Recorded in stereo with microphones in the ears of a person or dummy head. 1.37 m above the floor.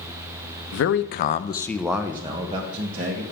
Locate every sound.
0.7 s a man speaking: 75° left (ahead or behind), 0.9 m; by 3.2 s 45° right (ahead or behind), 1.7 m